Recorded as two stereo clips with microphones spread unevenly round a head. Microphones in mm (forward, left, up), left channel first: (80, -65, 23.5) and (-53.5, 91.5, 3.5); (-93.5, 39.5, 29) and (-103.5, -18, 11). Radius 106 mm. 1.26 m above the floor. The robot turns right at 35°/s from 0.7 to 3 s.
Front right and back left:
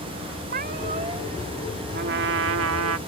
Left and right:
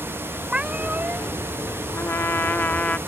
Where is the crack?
No crack in this recording.